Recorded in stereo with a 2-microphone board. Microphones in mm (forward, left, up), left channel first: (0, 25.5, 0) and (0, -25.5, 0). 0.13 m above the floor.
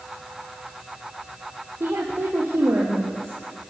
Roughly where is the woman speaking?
Right.